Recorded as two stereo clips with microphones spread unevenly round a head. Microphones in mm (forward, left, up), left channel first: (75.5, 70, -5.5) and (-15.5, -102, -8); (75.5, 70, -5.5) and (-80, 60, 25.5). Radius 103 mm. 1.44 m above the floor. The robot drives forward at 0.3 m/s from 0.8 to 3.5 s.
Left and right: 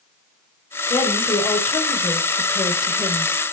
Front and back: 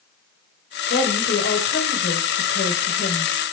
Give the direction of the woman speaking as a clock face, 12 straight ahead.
1 o'clock.